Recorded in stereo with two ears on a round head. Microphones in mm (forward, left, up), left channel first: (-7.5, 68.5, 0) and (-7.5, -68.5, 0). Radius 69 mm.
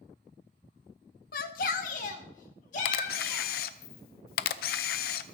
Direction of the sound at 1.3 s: 60° left (ahead or behind).